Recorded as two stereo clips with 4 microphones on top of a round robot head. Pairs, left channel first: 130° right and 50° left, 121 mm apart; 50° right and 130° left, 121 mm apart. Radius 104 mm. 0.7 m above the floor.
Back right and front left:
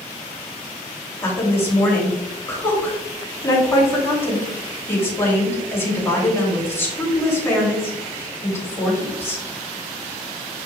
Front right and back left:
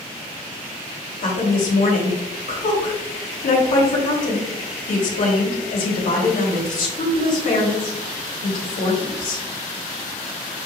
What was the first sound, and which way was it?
A woman speaking, 60° right.